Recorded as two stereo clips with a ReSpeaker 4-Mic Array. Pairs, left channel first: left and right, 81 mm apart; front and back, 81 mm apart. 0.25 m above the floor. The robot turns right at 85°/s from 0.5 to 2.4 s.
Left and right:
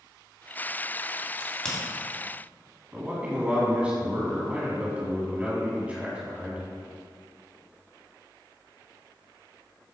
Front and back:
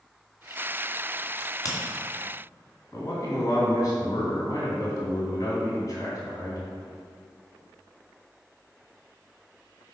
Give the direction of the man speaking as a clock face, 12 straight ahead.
1 o'clock.